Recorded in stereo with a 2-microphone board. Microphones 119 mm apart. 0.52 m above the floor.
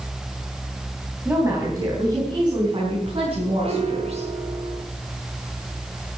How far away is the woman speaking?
About 4 m.